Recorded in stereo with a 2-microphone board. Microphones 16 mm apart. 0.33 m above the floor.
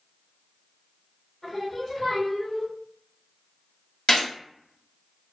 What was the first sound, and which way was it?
Singing, 25° left (ahead or behind).